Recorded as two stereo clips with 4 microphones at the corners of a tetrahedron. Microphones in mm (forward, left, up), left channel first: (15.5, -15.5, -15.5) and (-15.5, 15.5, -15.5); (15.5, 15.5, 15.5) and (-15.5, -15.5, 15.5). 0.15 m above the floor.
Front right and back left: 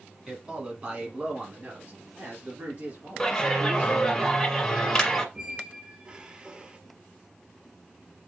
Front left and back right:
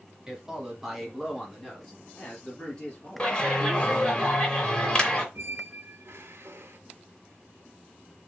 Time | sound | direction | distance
0.3 | a man speaking | straight behind | 1.5 m
3.2 | a clap | 15° left | 1.4 m
5.3 | a squeak | 155° right | 0.5 m